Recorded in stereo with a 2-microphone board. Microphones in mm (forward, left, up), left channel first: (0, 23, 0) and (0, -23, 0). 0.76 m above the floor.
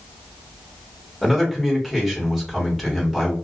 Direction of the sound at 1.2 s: Centre (ahead or behind).